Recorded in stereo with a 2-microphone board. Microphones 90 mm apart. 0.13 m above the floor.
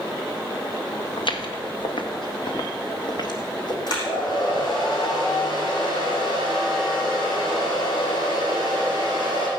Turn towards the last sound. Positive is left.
turn(degrees=55)  # may be behind; listen again after turning